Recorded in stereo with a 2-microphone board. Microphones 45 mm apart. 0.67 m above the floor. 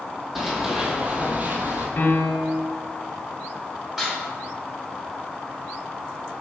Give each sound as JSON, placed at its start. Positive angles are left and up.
{"t": 0.3, "sound": "running footsteps", "side_deg": -5, "distance_m": 1.0}
{"t": 2.0, "sound": "a piano", "side_deg": 50, "distance_m": 0.6}
{"t": 4.0, "sound": "dishes clattering", "side_deg": -10, "distance_m": 1.4}